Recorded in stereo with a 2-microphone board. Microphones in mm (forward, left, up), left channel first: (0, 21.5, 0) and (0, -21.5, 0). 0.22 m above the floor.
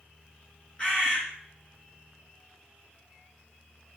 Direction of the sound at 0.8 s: 30° left (ahead or behind).